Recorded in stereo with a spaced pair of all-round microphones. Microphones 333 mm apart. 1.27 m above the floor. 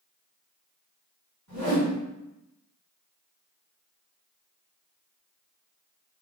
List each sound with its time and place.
1.5 s a whoosh: 60° right (ahead or behind), 1.8 m